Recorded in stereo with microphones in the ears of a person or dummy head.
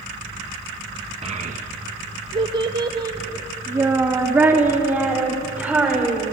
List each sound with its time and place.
1.2 s a child speaking: 30° right (ahead or behind), 1.0 m; by 6.3 s 5° right (ahead or behind), 4 m